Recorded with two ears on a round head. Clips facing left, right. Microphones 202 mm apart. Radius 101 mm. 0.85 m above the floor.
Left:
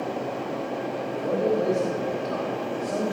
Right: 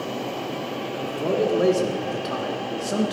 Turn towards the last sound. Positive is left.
turn(degrees=-50)  # may be behind; listen again after turning